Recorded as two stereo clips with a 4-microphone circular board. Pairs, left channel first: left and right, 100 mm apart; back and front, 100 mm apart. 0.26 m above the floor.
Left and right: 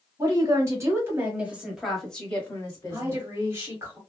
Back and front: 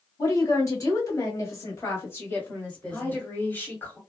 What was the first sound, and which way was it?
A woman speaking, 130° right.